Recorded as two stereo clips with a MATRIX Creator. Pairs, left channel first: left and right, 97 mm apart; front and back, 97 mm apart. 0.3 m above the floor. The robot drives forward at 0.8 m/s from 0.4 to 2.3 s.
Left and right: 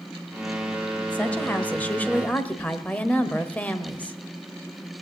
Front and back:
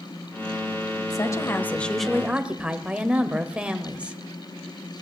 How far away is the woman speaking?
About 1.2 m.